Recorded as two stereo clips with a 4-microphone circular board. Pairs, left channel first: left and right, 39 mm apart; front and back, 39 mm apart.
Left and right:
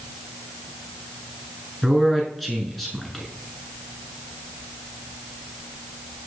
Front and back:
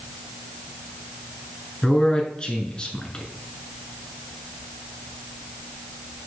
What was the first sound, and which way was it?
A man speaking, straight ahead.